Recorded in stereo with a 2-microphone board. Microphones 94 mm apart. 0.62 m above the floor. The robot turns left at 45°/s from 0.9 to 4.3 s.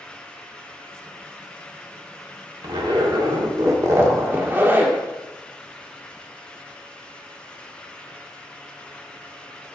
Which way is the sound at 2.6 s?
80° right.